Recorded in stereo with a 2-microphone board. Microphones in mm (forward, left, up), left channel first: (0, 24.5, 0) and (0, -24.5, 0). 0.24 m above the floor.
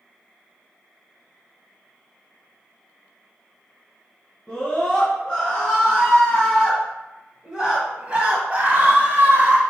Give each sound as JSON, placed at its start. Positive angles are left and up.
{"t": 4.5, "sound": "a scream", "side_deg": 15, "distance_m": 3.0}